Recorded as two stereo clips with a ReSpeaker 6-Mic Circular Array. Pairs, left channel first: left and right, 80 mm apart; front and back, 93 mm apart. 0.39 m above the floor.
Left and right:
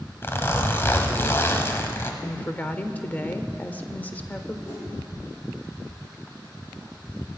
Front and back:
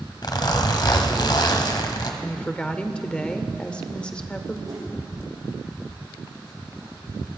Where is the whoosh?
140° left, 4.5 m.